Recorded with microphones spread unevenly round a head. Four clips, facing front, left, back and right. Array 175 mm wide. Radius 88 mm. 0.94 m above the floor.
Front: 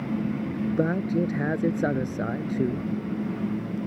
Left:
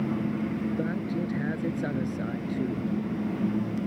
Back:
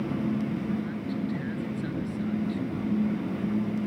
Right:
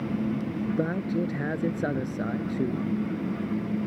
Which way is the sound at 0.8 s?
20° right.